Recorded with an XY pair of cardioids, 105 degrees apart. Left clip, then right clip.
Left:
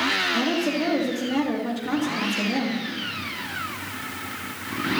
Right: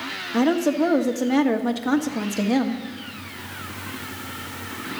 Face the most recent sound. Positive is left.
turn(degrees=-45)